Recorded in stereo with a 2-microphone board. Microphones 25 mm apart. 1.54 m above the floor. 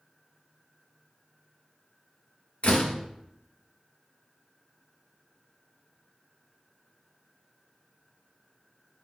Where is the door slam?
60° left (ahead or behind), 1.3 m.